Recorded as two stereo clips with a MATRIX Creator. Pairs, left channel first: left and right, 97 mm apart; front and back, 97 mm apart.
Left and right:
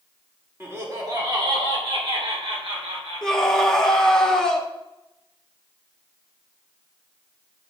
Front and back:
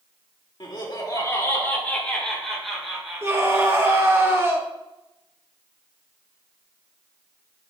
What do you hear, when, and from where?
0.6 s laughter: 25° right, 1.8 m; by 4.2 s 105° right, 3.5 m
3.2 s a scream: 165° left, 1.3 m